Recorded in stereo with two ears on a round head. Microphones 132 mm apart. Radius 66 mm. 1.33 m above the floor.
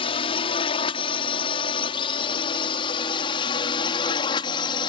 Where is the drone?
35° left (ahead or behind); by 4.9 s 30° left (ahead or behind).